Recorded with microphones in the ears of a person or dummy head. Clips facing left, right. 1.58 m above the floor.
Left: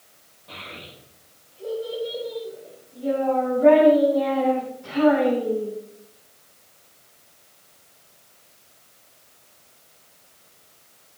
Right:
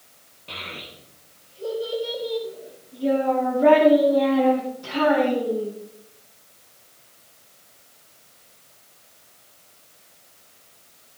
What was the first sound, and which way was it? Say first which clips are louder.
A child speaking: right 2 dB; 40° right (ahead or behind).